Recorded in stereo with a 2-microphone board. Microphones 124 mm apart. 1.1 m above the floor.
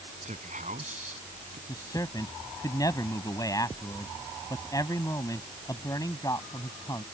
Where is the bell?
No bell in this recording.